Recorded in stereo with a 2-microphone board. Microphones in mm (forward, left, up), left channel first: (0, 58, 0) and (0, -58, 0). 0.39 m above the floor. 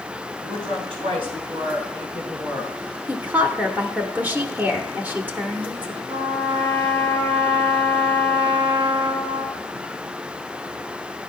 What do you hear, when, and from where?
0.4 s a woman speaking: 55° right (ahead or behind), 4.5 m; by 2.7 s 35° right (ahead or behind), 4.5 m
3.1 s a woman speaking: 15° right (ahead or behind), 0.8 m
6.1 s a trumpet: 45° right (ahead or behind), 5 m